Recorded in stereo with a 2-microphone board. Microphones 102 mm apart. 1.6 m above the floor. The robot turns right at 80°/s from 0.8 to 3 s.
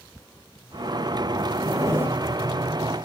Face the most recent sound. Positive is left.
turn(degrees=40)